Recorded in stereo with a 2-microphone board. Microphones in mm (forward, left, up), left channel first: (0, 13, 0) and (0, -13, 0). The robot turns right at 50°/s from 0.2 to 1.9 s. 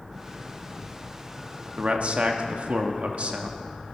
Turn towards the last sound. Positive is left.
turn(degrees=-55)  # may be behind; listen again after turning